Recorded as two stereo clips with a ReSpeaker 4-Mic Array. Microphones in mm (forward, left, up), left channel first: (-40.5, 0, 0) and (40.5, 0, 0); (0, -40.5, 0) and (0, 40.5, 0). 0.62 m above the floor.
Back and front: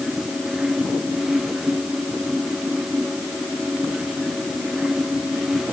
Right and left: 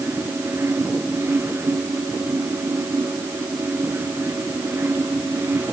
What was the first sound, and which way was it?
Only background noise.